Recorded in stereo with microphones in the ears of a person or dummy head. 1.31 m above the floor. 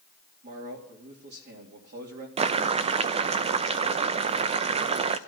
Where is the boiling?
35° right (ahead or behind), 0.5 m.